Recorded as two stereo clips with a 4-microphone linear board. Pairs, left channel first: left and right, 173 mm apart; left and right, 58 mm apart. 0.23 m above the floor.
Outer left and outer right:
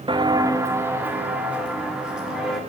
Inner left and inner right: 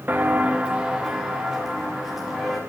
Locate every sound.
0.1 s footsteps: 30° right (ahead or behind), 0.7 m; by 2.6 s 5° right (ahead or behind), 3 m